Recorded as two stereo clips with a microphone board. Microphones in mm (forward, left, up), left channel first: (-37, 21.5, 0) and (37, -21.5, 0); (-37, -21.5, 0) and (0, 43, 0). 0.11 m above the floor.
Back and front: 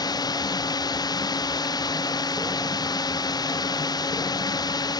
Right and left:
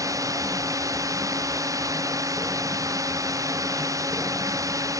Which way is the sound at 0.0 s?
105° left.